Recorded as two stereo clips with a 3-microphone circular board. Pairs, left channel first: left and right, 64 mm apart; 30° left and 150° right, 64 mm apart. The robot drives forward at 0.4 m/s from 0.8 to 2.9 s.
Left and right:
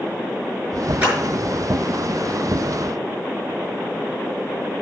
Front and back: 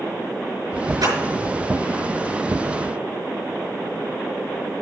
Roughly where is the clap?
Behind.